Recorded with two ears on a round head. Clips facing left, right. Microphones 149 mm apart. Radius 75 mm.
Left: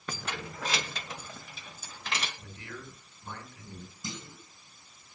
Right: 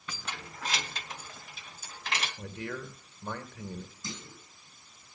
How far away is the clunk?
About 4 m.